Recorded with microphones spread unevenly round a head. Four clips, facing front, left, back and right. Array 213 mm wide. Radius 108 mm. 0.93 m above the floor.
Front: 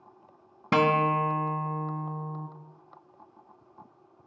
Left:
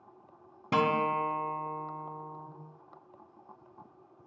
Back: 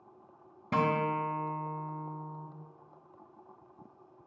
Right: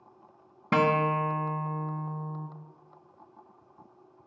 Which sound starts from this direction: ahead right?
A guitar, at 0.7 s.